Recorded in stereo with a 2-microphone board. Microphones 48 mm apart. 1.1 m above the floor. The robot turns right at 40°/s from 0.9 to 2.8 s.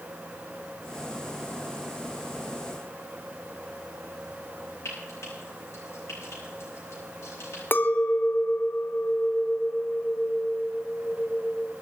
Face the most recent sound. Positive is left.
turn(degrees=45)  # may be behind; listen again after turning